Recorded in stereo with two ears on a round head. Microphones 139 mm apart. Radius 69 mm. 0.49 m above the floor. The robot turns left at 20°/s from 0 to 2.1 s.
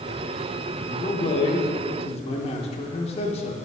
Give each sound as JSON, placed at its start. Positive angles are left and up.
{"t": 0.8, "sound": "a man speaking", "side_deg": 30, "distance_m": 0.8}